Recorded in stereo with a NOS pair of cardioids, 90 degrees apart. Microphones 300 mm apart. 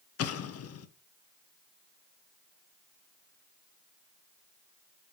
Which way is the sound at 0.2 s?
55° left.